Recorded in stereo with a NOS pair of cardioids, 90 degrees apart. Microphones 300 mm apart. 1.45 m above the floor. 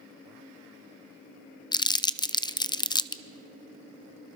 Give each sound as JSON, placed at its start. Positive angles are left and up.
{"t": 1.7, "sound": "crumpling", "azimuth_deg": 15, "distance_m": 0.6}